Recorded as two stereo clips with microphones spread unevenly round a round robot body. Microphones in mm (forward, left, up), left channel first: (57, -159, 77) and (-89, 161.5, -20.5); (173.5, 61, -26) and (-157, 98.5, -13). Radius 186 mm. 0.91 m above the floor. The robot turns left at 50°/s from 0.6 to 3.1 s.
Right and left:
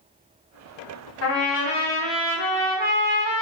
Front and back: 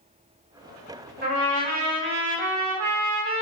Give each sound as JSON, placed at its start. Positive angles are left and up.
{"t": 1.2, "sound": "a trumpet", "azimuth_deg": -120, "distance_m": 1.0}